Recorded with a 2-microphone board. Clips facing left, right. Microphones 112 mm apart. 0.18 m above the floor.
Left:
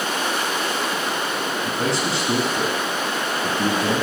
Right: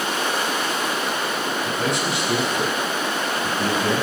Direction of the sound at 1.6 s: 30° left (ahead or behind).